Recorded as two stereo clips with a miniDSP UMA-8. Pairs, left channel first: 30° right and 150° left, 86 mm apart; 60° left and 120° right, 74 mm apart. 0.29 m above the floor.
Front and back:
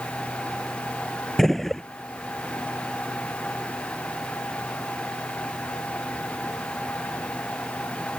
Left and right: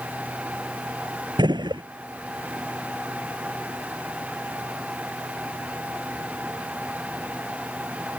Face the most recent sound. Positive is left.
turn(degrees=-115)